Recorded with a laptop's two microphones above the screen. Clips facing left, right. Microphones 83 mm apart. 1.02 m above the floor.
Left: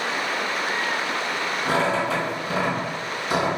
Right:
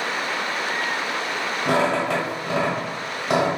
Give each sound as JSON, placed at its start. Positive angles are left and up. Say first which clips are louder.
{"t": 1.6, "sound": "a squeak", "louder": "right 2 dB", "side_deg": -60, "distance_m": 1.4}